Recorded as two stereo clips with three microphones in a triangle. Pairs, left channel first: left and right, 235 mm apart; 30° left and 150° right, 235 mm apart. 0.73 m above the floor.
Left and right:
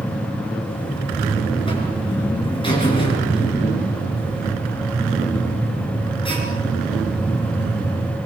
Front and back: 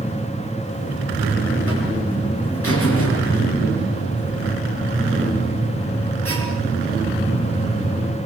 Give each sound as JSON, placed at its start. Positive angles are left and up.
{"t": 0.7, "sound": "a buzzer", "azimuth_deg": 20, "distance_m": 5.5}